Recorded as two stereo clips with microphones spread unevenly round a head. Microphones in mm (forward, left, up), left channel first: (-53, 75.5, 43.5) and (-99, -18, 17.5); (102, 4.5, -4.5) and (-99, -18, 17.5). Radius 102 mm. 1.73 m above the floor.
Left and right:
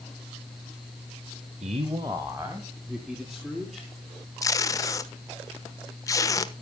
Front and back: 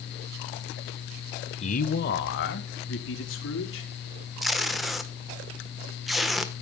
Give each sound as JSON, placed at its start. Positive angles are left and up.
{"t": 1.6, "sound": "a man speaking", "azimuth_deg": -55, "distance_m": 1.0}
{"t": 4.4, "sound": "tape being pulled", "azimuth_deg": 100, "distance_m": 1.0}